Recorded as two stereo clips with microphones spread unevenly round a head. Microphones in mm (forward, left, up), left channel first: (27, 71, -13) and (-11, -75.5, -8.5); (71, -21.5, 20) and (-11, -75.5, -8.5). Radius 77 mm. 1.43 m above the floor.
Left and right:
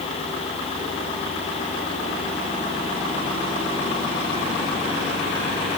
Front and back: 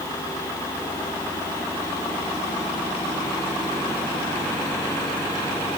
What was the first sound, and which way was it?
Only background noise.